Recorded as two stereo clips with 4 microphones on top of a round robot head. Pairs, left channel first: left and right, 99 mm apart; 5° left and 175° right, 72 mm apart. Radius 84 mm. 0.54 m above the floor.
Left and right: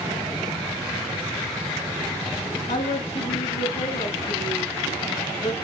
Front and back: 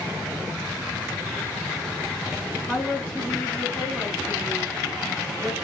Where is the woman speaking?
90° left, 6 m; by 5.5 s 75° left, 6 m.